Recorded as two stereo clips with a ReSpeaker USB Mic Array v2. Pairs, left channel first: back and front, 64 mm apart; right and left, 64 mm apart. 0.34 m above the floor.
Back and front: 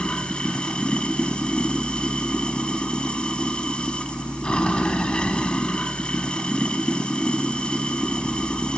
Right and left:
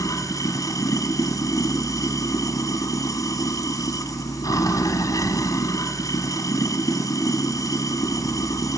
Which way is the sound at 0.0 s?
110° right.